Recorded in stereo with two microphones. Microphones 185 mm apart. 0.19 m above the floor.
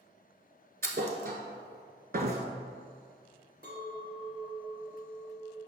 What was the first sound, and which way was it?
A thud, 55° right (ahead or behind).